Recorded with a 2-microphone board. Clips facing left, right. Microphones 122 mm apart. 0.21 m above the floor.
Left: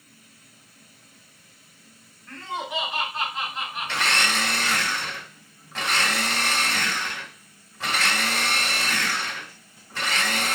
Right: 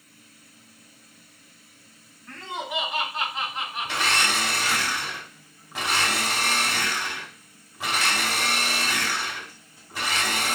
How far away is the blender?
About 1.1 m.